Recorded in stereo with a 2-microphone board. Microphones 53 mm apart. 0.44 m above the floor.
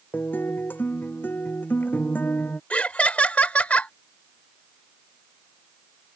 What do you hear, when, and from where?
0.1 s a guitar: 35° left (ahead or behind)
2.7 s laughter: 25° left (ahead or behind)